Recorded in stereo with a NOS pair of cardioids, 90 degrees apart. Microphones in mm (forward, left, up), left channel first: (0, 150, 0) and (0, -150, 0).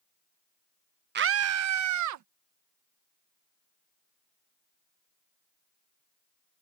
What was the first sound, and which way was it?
A scream, 35° right.